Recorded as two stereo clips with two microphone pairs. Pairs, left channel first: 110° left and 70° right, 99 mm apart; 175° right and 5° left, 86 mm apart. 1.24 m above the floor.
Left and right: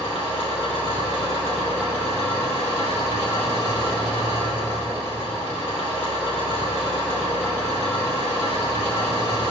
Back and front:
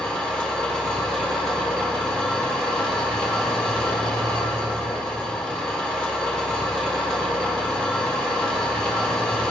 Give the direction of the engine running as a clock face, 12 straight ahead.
9 o'clock.